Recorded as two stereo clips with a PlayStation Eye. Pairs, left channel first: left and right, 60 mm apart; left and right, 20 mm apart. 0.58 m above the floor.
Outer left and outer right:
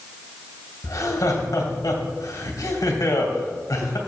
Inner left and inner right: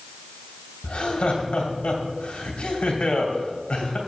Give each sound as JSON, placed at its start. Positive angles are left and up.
{"t": 0.8, "sound": "laughter", "side_deg": 70, "distance_m": 2.5}